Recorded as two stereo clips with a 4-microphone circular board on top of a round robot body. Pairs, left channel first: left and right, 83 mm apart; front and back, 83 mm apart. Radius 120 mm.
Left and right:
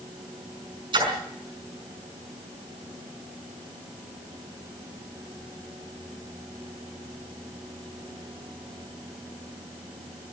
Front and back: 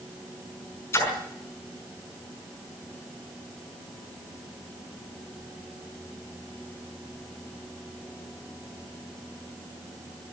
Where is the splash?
60° right, 5 m.